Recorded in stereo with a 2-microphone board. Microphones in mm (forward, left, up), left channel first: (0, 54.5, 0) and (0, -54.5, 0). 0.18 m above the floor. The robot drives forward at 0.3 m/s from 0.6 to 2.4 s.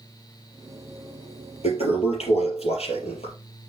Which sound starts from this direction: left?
A toilet flushing, at 1.6 s.